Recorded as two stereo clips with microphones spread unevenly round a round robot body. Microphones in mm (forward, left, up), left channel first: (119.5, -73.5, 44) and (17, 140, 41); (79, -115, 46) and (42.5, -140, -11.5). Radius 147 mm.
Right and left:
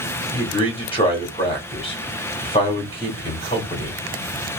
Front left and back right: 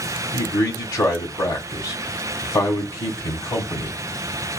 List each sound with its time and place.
0.3 s a man speaking: straight ahead, 1.4 m